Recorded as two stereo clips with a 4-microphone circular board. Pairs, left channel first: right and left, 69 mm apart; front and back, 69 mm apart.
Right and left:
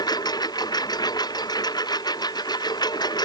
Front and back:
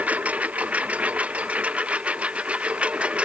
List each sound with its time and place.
0.0 s a lawn mower: 110° right; by 3.2 s 105° right